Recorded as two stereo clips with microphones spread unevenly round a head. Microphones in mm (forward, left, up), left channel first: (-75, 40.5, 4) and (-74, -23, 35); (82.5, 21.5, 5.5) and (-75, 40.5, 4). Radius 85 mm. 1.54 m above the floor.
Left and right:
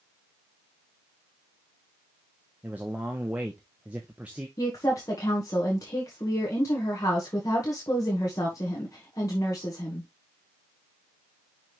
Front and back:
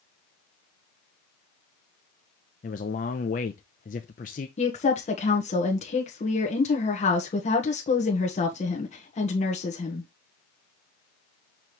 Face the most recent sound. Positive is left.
turn(degrees=40)